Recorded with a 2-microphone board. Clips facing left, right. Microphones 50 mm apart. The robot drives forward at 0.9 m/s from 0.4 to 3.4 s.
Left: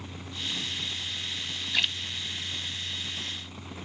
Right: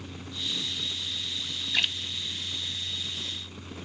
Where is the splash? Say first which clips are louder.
Even; centre (ahead or behind), 0.5 m.